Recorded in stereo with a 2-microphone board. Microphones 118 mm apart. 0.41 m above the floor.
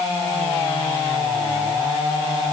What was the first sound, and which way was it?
Only background noise.